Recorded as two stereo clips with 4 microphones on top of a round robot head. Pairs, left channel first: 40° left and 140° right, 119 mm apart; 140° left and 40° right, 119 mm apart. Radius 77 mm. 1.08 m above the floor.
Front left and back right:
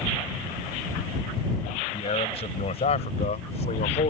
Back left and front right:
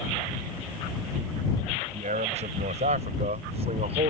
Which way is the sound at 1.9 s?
5° right.